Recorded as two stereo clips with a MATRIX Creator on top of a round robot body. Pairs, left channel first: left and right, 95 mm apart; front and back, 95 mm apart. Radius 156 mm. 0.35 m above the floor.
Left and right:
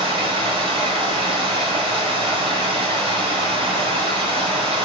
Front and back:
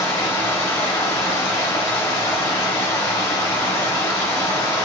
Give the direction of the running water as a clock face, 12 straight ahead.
2 o'clock.